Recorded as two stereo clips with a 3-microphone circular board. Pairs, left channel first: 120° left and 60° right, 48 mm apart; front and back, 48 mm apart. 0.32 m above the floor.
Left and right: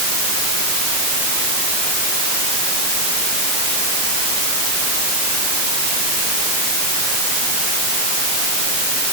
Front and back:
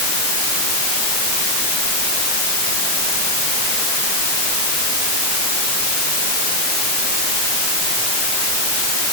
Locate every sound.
Only background noise.